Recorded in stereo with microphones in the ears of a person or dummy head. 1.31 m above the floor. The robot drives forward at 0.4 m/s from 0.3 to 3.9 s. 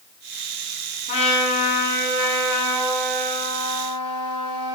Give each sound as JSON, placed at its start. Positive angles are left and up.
{"t": 1.1, "sound": "a trumpet", "side_deg": 30, "distance_m": 0.5}